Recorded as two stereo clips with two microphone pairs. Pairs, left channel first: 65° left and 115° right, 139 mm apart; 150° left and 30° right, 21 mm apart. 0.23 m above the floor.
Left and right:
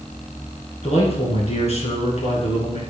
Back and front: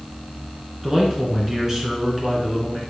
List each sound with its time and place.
0.8 s a man speaking: 30° left, 2.5 m